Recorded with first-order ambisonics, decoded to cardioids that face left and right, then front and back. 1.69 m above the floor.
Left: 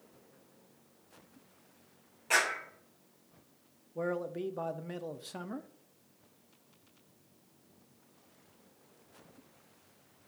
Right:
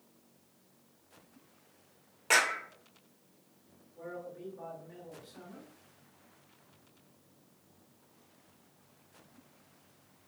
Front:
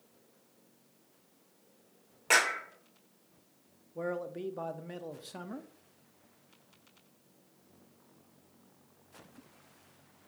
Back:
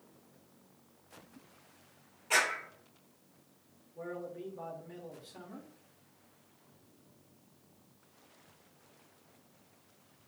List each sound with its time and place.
2.3 s a clap: 35° right, 2.5 m
4.0 s a man speaking: 55° left, 0.8 m